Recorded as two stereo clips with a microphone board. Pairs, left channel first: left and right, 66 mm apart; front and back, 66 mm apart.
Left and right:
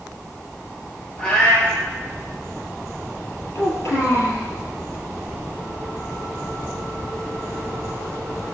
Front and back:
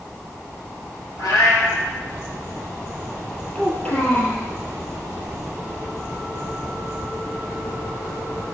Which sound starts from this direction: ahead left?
A child speaking, at 3.5 s.